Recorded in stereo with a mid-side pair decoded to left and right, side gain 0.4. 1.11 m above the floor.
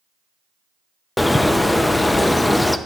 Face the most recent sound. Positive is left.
turn(degrees=20)